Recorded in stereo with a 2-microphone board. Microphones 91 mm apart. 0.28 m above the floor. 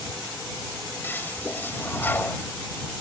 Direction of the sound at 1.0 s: 25° left (ahead or behind).